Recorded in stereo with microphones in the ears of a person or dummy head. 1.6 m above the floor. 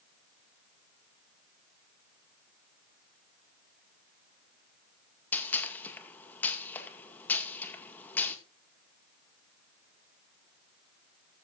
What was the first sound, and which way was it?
A gunshot, 10° left (ahead or behind).